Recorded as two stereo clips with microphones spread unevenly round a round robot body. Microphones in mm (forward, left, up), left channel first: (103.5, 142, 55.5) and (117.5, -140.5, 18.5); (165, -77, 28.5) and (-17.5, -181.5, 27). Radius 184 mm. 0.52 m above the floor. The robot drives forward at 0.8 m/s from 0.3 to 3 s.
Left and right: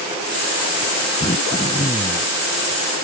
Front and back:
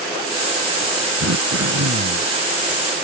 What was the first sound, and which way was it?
Throat clearing, 170° left.